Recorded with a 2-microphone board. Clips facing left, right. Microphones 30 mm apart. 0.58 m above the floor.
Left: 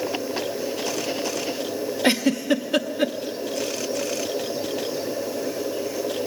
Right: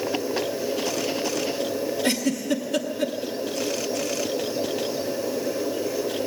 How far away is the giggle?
About 0.9 m.